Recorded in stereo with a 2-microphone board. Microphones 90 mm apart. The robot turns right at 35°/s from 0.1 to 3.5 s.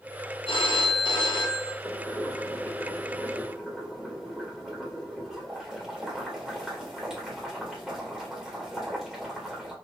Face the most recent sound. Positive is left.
turn(degrees=-175)